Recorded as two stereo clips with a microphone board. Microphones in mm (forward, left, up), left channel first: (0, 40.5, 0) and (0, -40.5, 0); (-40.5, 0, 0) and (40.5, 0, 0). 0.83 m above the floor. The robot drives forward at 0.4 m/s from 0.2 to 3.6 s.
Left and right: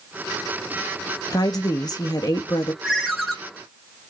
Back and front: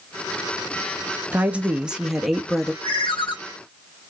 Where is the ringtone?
Straight behind, 1.8 m.